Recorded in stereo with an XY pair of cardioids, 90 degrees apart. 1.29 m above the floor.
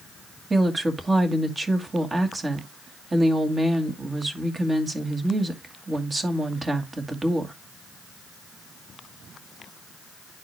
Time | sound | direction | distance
0.5 | a woman speaking | 25° right | 2 m